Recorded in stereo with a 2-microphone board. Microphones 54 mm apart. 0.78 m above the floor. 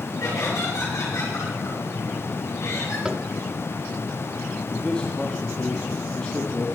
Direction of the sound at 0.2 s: 80° left.